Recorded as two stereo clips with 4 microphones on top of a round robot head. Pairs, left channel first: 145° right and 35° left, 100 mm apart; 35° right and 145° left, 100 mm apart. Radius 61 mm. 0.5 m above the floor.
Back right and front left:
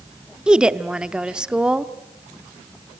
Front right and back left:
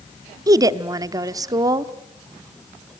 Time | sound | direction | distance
0.5 | a woman speaking | 115° left | 0.8 m